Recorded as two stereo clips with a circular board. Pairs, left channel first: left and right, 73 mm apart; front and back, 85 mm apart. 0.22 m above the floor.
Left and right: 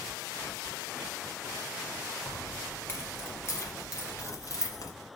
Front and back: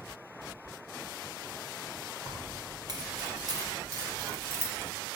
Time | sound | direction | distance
2.2 | keys jangling | 155° left | 3 m